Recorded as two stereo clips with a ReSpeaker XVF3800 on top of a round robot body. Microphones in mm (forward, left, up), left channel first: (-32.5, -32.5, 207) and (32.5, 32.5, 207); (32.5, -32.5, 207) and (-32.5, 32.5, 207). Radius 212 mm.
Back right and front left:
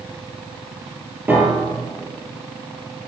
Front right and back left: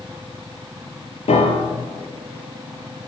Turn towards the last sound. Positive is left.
turn(degrees=-30)